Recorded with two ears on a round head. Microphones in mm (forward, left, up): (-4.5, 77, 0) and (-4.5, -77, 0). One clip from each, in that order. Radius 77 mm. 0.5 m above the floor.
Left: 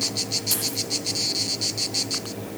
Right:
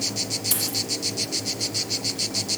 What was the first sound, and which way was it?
A dropped coin, 10° right (ahead or behind).